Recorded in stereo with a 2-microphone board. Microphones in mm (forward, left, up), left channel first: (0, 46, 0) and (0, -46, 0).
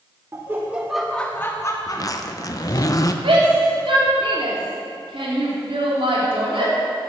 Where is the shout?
80° right, 3 m.